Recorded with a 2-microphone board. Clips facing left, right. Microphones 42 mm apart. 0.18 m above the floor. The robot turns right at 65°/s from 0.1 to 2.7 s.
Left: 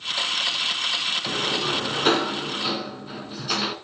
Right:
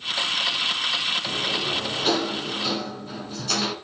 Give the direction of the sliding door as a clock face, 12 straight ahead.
10 o'clock.